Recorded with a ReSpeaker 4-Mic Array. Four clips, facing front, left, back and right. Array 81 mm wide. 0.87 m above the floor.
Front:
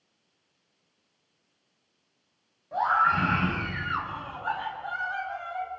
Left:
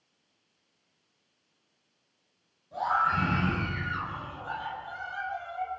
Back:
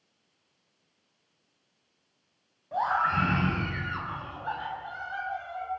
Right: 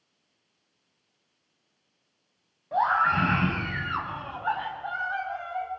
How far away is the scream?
About 7 m.